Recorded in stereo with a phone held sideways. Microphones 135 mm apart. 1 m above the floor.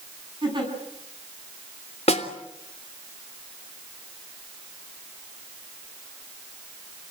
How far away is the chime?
No chime in this recording.